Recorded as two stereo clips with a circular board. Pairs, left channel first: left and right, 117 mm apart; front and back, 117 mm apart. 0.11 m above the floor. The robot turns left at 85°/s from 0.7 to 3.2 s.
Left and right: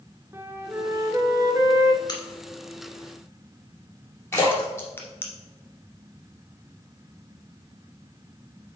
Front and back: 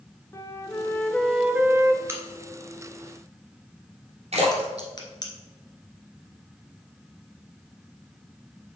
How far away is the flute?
About 0.9 m.